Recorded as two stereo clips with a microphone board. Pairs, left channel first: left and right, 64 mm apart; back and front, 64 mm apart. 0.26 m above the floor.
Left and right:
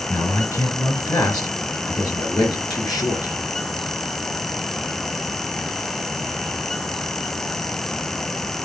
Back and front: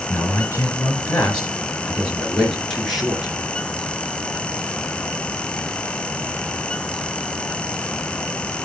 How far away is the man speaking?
About 4 m.